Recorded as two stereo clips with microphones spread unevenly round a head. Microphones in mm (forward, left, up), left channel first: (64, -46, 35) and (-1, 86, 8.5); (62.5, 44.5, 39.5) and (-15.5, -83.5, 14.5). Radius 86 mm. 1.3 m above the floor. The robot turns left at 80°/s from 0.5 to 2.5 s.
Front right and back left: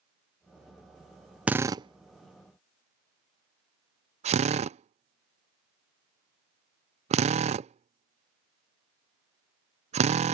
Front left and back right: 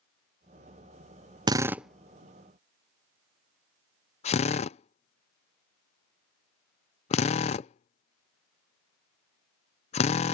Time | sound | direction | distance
1.5 | a drill | 170° right | ?